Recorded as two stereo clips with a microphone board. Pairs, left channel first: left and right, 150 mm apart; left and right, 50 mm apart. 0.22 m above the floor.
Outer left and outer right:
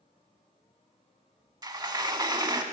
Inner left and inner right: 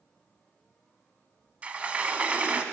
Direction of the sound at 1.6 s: 25° right (ahead or behind).